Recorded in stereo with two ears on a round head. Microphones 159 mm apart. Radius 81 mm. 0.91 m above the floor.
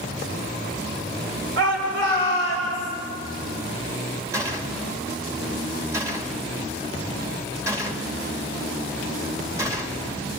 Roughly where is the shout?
Right.